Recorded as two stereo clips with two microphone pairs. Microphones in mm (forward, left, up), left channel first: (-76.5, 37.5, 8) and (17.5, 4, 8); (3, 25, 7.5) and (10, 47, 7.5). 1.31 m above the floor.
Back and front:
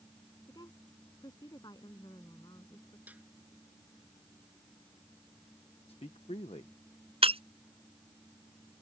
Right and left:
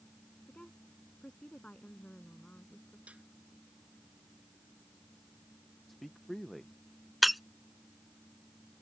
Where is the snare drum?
55° left.